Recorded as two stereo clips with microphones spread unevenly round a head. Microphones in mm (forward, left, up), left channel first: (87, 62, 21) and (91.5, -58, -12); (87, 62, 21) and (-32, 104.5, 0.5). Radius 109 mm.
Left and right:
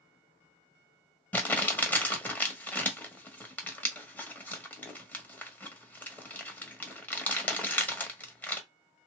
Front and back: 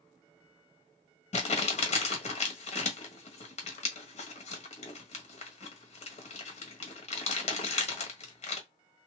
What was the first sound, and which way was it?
Crumpling, 15° left.